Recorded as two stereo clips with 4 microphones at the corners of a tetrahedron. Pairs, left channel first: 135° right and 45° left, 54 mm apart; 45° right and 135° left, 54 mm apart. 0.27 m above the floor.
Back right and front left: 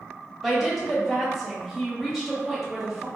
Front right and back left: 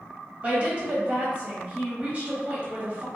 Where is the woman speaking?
130° left, 1.1 m.